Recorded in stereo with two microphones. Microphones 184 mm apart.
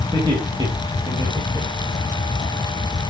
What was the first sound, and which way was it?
Laughter, 25° right (ahead or behind).